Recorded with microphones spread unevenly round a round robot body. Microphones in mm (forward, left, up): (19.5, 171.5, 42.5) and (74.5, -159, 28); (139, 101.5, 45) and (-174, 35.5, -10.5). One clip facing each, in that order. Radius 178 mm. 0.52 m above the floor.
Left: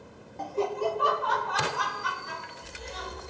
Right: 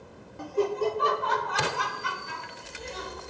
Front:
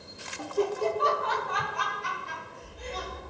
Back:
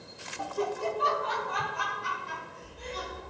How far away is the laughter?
About 0.7 m.